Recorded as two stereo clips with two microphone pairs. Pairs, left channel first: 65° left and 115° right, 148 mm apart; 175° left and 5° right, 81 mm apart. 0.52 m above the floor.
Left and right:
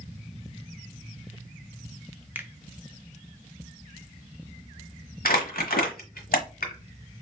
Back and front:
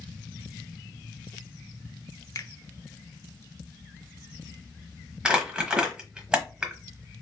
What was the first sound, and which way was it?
A finger snap, straight behind.